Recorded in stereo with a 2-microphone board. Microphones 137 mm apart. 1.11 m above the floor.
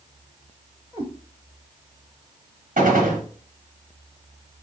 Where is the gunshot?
75° right (ahead or behind), 1.1 m.